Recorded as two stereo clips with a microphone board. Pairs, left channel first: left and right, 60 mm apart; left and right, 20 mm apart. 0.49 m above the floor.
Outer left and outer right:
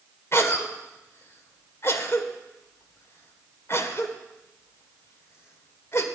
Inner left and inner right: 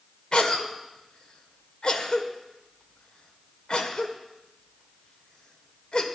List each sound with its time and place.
0.3 s a cough: 45° left (ahead or behind), 1.8 m